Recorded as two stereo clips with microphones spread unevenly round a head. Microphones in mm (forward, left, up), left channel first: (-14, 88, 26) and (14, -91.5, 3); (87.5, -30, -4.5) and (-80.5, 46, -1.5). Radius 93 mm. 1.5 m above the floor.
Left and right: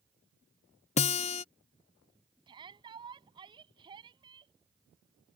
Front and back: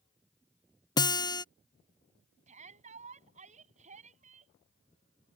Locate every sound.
1.0 s a guitar: 45° left
2.5 s a shout: 150° right